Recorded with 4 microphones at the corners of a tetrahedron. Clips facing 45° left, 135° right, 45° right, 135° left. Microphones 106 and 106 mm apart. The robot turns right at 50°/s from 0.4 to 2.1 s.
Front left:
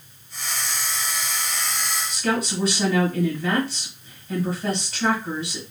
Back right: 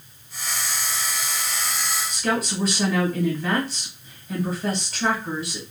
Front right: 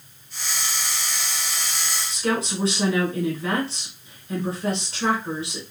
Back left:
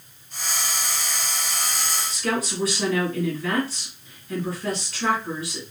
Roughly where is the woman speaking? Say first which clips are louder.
Front left 1 dB, front right 2 dB; ahead right.